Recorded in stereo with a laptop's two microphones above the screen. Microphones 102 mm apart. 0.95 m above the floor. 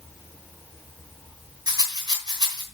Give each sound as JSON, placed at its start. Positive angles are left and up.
{"t": 1.7, "sound": "a rattle", "side_deg": -45, "distance_m": 2.5}